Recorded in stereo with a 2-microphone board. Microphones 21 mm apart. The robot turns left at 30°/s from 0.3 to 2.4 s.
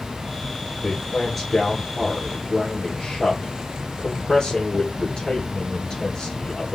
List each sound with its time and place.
0.8 s a man speaking: 5° right (ahead or behind), 2.5 m; by 6.8 s 35° left (ahead or behind), 2.5 m